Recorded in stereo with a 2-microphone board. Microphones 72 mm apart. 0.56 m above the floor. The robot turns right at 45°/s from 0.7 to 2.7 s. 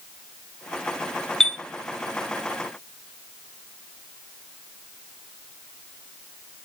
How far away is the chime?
About 0.7 m.